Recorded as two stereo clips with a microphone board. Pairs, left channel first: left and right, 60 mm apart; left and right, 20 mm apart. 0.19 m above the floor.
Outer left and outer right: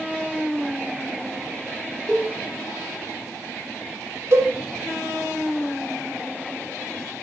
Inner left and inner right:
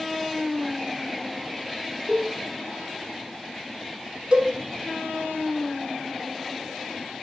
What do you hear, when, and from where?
2.1 s a cowbell: 10° left (ahead or behind), 1.0 m
4.3 s a cowbell: 45° right (ahead or behind), 0.5 m